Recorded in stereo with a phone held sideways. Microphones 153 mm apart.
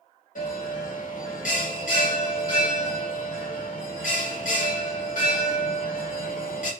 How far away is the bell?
About 1.0 m.